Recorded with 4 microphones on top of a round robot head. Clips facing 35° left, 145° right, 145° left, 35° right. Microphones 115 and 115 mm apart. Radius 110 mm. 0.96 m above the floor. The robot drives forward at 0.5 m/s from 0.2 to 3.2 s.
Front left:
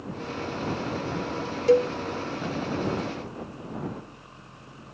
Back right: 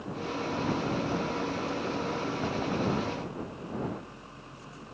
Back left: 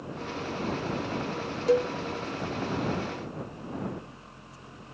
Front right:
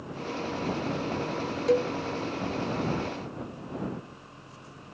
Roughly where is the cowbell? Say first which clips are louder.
Front left 14 dB, back left 1 dB; ahead left.